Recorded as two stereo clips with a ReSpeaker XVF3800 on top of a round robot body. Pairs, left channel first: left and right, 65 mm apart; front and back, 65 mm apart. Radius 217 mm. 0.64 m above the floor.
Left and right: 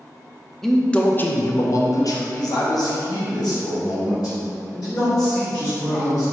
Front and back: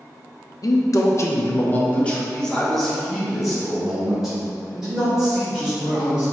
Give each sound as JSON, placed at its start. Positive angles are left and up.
{"t": 0.6, "sound": "a man speaking", "azimuth_deg": 5, "distance_m": 0.8}